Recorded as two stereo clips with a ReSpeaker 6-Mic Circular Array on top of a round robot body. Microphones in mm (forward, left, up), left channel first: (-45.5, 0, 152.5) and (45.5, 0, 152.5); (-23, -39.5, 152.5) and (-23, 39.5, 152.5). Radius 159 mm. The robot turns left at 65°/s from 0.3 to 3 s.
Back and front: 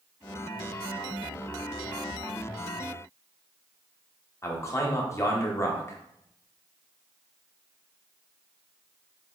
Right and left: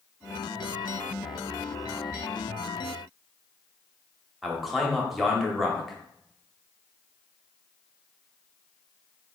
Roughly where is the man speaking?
Behind.